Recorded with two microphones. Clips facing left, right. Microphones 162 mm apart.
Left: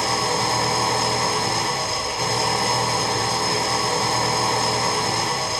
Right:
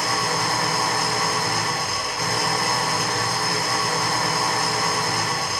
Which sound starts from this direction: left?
An engine running, at 0.0 s.